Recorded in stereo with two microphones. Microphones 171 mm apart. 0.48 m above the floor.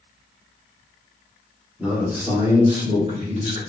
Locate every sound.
1.8 s a man speaking: 5° right (ahead or behind), 1.1 m; by 3.6 s 45° right (ahead or behind), 1.4 m